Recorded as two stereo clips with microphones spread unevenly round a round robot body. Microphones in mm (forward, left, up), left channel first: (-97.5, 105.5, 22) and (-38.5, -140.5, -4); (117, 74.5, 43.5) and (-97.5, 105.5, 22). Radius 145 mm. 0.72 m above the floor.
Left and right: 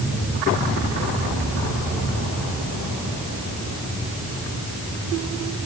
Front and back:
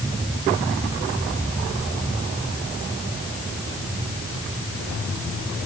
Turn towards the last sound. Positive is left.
No sound to turn to.